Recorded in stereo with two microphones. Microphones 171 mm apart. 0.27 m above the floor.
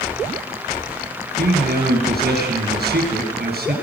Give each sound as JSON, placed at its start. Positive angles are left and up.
{"t": 1.4, "sound": "a man speaking", "side_deg": -75, "distance_m": 4.5}